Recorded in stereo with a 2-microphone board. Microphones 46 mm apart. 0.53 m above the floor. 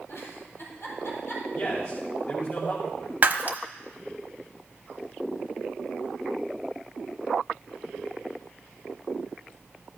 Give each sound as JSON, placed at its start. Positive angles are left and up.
{"t": 0.1, "sound": "a giggle", "side_deg": 65, "distance_m": 4.5}
{"t": 1.5, "sound": "a man speaking", "side_deg": 50, "distance_m": 2.5}
{"t": 3.2, "sound": "breaking glass", "side_deg": -40, "distance_m": 0.9}